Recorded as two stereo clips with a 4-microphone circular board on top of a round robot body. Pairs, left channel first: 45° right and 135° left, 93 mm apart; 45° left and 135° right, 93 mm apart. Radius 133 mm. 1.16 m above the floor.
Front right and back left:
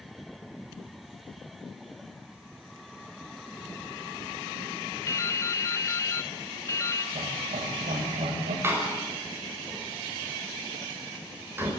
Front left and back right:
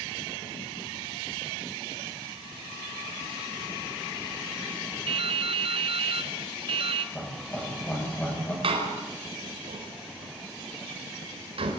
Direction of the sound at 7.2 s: 120° left.